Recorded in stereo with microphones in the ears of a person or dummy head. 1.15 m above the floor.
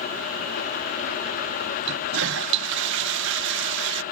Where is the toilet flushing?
65° right (ahead or behind).